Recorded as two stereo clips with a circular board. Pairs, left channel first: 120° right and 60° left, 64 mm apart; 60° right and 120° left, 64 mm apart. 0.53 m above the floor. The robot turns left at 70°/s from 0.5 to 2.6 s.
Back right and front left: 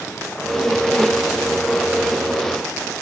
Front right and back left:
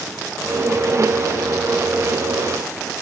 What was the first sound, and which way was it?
Only background noise.